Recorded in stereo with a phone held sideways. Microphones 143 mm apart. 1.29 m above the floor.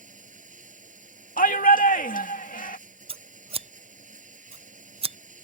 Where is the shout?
80° left.